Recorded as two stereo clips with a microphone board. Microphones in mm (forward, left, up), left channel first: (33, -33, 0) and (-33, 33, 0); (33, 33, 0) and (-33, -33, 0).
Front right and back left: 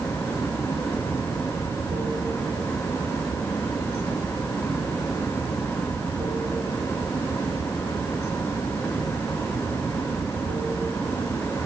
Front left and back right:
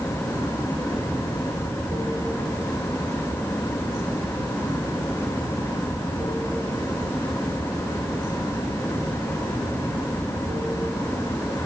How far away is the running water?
About 6 m.